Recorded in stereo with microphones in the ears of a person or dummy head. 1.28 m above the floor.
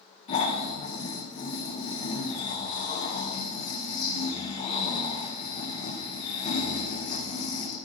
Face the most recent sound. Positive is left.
turn(degrees=40)  # may be behind; listen again after turning